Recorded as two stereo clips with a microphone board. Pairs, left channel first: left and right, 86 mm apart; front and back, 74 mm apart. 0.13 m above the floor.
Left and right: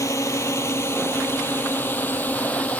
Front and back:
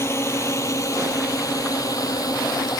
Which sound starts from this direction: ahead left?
A drone, at 0.0 s.